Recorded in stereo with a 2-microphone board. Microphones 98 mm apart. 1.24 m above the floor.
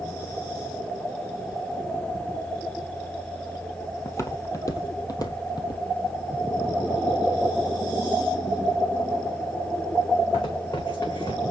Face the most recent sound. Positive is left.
turn(degrees=65)  # may be behind; listen again after turning